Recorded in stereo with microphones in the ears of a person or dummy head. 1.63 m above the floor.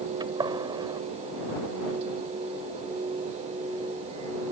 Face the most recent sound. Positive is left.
turn(degrees=-30)  # may be behind; listen again after turning